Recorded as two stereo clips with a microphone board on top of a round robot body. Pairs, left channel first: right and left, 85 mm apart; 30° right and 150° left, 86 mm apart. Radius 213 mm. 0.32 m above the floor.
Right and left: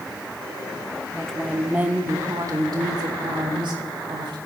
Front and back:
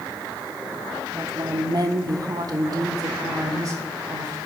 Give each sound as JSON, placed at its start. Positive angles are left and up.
{"t": 1.1, "sound": "a woman speaking", "azimuth_deg": -165, "distance_m": 2.0}